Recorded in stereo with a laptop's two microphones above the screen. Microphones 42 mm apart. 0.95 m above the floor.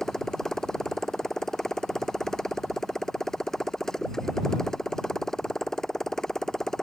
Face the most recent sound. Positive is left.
turn(degrees=10)  # may be behind; listen again after turning